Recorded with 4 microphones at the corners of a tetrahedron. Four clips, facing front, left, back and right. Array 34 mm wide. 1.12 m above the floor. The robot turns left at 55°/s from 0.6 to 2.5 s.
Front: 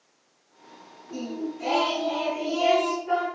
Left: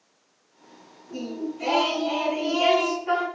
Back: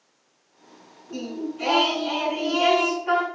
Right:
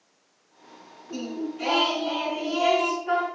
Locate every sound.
1.1 s singing: 115° right, 6.5 m; by 3.2 s 170° left, 6.5 m